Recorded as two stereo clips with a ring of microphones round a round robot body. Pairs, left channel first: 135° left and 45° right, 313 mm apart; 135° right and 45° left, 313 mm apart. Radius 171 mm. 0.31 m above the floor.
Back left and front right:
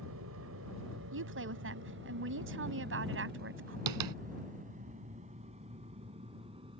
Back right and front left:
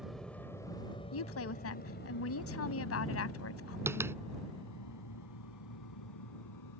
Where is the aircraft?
45° right; by 6.8 s 120° right.